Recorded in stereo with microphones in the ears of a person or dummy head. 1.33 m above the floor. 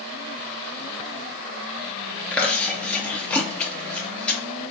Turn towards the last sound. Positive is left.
turn(degrees=5)  # may be behind; listen again after turning